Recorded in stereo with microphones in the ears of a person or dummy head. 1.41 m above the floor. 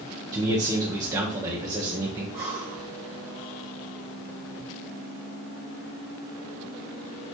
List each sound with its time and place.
0.3 s a man speaking: 25° right (ahead or behind), 1.2 m
2.3 s breathing: 25° right (ahead or behind), 1.0 m